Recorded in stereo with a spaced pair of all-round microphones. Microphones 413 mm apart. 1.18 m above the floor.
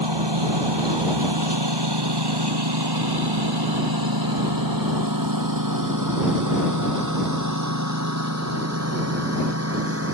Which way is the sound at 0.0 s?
80° right.